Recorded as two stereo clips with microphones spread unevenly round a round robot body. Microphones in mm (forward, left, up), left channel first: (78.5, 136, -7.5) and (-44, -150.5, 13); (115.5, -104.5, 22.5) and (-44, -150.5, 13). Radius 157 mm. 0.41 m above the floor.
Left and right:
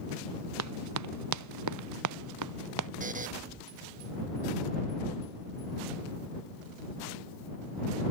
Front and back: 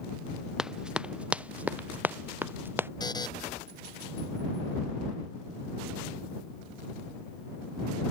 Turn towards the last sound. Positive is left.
turn(degrees=-50)